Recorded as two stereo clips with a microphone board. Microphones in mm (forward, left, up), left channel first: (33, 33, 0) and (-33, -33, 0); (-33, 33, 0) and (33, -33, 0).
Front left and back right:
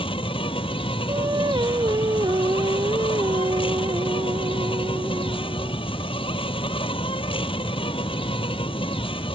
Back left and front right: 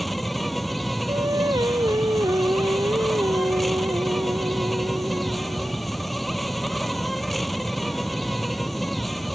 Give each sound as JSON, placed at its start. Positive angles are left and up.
{"t": 0.0, "sound": "an insect", "azimuth_deg": 45}
{"t": 1.1, "sound": "singing", "azimuth_deg": -90}